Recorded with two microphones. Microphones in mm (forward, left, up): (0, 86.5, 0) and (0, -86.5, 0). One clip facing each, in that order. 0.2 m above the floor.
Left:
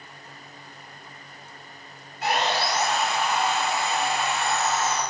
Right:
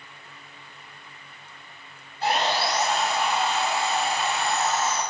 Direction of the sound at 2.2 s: 30° right (ahead or behind).